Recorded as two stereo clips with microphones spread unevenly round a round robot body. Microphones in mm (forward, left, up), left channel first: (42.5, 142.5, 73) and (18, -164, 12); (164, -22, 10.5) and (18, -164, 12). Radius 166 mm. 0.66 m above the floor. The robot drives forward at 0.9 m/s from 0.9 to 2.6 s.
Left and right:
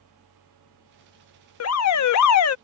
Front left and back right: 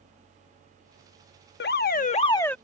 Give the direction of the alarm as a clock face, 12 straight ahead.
11 o'clock.